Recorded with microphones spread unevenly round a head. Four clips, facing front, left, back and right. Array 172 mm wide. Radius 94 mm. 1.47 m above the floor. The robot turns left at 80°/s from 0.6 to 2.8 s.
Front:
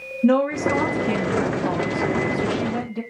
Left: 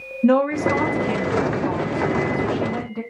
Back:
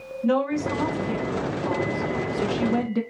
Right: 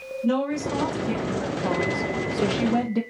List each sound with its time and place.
0.2 s a woman speaking: 45° left, 1.0 m; by 3.0 s 130° right, 1.0 m